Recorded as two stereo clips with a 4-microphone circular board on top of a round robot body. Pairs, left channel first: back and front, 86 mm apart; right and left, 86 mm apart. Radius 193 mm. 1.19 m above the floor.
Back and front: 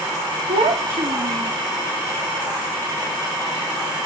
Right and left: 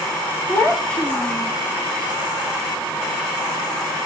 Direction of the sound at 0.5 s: 10° right.